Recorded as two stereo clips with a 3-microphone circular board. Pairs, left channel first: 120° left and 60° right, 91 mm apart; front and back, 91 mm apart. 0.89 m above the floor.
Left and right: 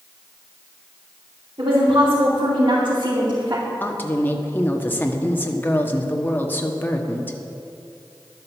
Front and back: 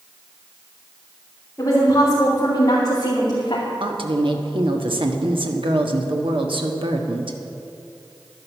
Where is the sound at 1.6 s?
55° right, 3 m; by 3.7 s 30° right, 2.5 m.